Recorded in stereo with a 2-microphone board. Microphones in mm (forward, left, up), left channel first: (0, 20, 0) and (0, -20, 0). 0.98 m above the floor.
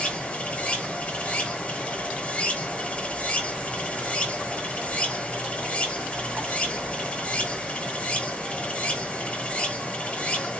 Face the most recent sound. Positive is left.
turn(degrees=35)  # may be behind; listen again after turning